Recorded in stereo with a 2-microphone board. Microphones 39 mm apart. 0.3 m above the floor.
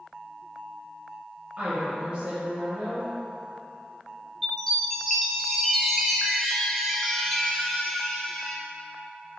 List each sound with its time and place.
1.6 s a woman speaking: 30° right (ahead or behind), 1.0 m
4.4 s a chime: 5° left (ahead or behind), 0.5 m